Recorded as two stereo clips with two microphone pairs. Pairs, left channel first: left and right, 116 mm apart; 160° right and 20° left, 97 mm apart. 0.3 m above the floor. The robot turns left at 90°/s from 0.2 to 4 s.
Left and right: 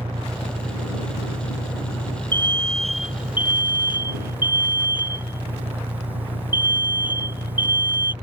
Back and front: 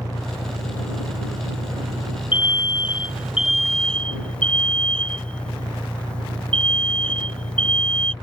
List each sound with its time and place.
0.0 s an engine running: 135° right; by 8.2 s 115° right
2.3 s an alarm: 45° left; by 8.1 s 105° right